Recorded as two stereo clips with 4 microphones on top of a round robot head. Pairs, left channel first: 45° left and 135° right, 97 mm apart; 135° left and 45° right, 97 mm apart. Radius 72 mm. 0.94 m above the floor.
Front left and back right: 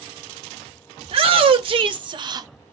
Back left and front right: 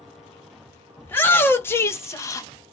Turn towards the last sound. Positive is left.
turn(degrees=180)